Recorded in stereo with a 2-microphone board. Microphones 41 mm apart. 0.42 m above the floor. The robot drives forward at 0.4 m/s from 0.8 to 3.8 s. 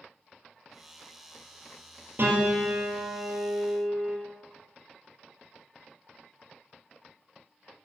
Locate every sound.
2.2 s a piano: 55° right (ahead or behind), 2 m; by 4.2 s 45° right (ahead or behind), 2.5 m